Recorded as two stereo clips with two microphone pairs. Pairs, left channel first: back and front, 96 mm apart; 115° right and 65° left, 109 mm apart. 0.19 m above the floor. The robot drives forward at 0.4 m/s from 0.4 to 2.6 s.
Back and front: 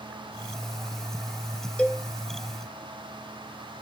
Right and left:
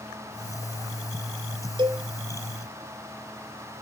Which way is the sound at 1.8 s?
105° left.